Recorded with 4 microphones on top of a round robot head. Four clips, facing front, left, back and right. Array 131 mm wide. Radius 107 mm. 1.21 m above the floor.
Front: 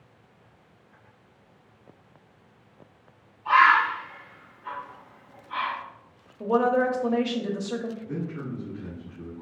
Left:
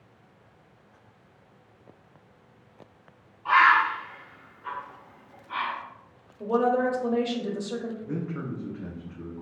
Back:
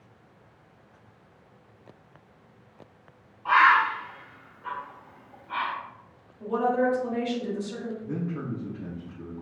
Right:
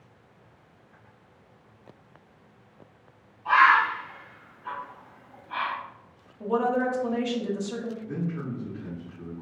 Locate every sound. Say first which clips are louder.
3.5 s a bird: even, front 1 dB; 165° left, 1.6 m
6.4 s a woman speaking: left 1 dB, front 2 dB; 20° left, 0.6 m
8.0 s a man speaking: even, back 1 dB; 110° left, 1.2 m